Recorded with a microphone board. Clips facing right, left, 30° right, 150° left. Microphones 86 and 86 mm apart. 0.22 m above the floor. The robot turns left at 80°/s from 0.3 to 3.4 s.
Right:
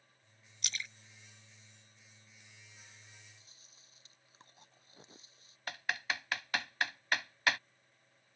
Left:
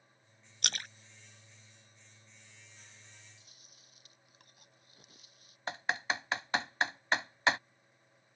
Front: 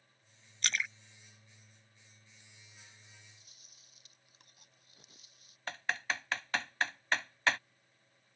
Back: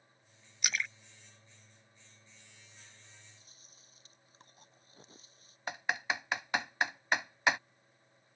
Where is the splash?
75° left; by 2.4 s 70° right.